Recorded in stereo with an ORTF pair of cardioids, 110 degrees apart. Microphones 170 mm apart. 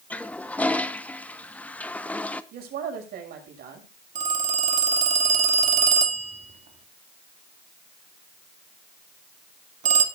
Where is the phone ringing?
45° right, 2.5 m.